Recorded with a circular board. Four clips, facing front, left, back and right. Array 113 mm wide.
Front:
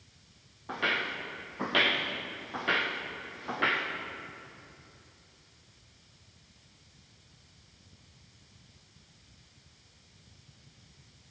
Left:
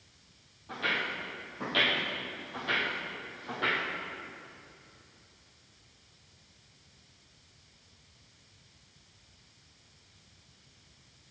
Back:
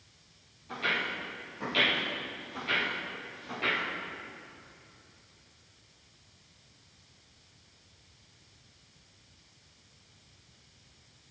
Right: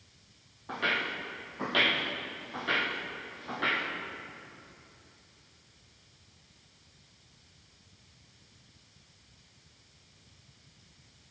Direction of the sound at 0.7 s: 35° right.